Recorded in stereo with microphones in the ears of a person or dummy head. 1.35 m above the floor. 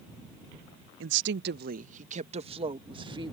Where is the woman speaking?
75° right (ahead or behind); by 3.3 s 20° right (ahead or behind).